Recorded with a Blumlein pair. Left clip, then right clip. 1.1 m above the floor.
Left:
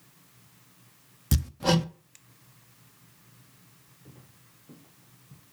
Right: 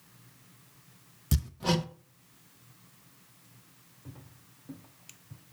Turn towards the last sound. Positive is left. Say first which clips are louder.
# right 3 dB
turn(degrees=-55)